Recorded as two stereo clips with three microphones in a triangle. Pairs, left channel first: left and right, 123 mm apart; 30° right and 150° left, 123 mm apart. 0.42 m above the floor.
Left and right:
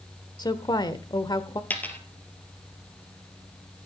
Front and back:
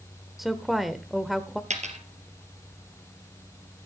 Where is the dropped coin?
165° left, 1.7 m.